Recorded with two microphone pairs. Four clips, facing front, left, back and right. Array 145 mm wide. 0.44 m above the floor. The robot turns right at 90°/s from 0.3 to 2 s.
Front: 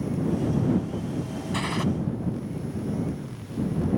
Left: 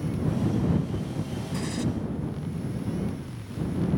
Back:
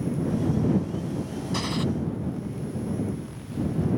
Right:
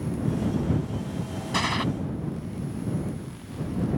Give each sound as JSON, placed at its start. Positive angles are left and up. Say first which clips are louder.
{"t": 1.5, "sound": "a gunshot", "louder": "right 5 dB, even", "azimuth_deg": -90}